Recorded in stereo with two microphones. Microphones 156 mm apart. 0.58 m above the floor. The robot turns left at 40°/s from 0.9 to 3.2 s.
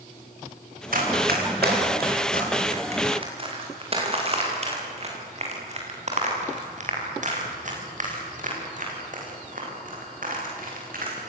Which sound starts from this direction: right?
Running footsteps, at 0.9 s.